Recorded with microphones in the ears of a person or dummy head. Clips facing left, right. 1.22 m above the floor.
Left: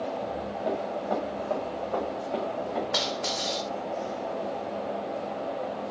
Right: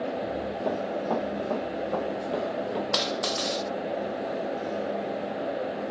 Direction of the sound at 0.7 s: 55° right (ahead or behind).